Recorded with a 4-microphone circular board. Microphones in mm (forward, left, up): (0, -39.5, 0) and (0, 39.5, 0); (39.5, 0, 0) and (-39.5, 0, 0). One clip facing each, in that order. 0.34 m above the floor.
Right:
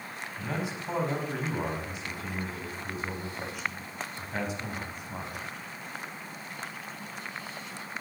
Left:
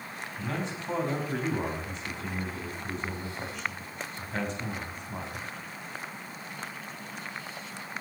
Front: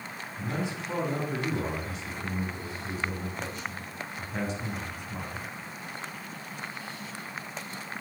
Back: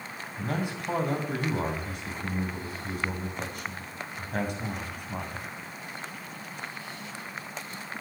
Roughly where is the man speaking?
Behind.